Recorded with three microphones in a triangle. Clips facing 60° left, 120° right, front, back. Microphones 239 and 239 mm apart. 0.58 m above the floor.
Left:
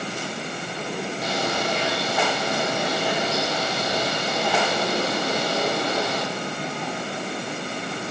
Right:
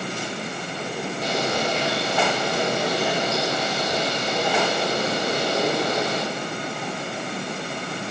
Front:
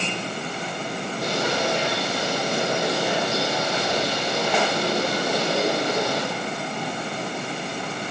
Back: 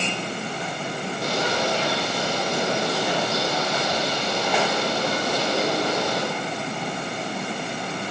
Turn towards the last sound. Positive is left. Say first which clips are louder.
# right 3 dB, even
turn(degrees=-65)